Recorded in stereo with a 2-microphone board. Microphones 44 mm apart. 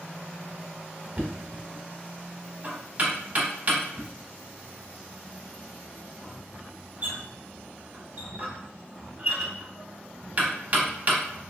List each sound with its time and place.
1.2 s knocking: 35° right (ahead or behind), 0.8 m